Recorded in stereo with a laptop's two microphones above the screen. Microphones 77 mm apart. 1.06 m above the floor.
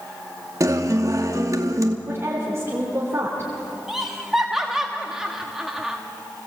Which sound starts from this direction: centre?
Laughter, at 3.9 s.